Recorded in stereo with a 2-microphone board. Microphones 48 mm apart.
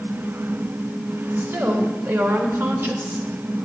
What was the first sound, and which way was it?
A woman speaking, 60° right (ahead or behind).